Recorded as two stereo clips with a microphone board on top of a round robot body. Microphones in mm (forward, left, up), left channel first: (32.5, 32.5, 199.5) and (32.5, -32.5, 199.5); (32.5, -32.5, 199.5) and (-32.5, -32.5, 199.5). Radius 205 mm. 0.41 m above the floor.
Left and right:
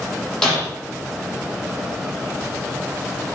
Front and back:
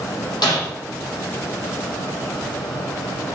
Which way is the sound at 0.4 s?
10° left.